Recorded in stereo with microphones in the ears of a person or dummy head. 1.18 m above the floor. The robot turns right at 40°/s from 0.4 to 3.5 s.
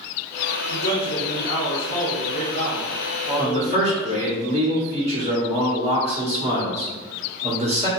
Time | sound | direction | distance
0.7 | a man speaking | 70° left | 0.8 m
3.4 | a man speaking | 35° right (ahead or behind) | 1.5 m